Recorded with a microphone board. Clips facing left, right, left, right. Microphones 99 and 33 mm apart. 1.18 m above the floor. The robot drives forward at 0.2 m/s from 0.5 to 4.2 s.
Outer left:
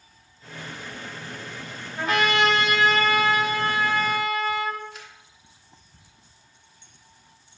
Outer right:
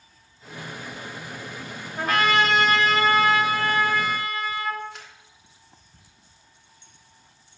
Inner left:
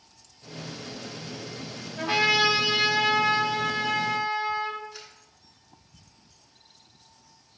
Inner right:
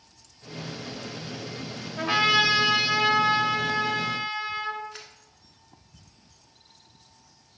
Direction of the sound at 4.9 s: 70° right (ahead or behind).